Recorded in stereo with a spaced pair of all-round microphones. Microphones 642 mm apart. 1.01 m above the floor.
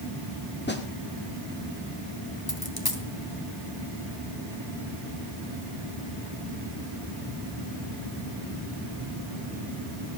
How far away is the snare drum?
About 1.8 m.